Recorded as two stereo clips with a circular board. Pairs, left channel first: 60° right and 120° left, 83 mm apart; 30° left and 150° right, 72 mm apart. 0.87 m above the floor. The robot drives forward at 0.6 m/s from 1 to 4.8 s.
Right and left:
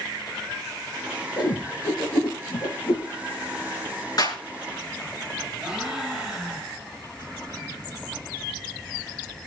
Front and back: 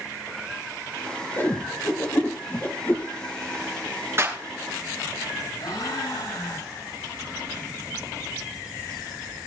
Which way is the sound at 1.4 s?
25° right.